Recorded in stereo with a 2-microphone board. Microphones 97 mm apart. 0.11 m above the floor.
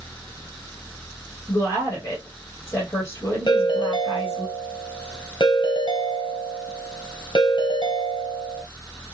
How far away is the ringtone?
About 1.5 m.